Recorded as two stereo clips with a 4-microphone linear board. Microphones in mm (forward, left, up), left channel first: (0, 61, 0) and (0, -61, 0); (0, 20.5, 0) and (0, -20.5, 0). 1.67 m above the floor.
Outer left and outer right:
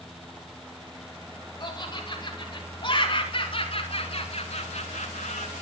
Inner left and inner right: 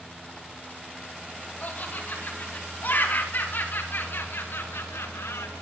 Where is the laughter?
35° left (ahead or behind), 6.5 m; by 5.5 s 85° left, 1.7 m.